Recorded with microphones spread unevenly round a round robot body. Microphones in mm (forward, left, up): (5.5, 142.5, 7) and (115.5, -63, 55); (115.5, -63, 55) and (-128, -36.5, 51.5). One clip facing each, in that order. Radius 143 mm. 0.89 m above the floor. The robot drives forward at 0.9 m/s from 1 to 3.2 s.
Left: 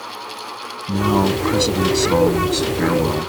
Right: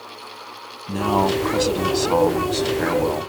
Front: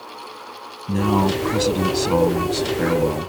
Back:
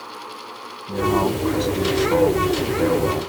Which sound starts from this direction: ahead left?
A man speaking, at 0.9 s.